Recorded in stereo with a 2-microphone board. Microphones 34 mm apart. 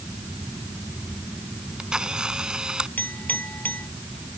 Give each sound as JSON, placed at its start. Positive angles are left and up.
{"t": 1.6, "sound": "a camera shutter", "side_deg": -25}
{"t": 3.0, "sound": "a clink", "side_deg": 60}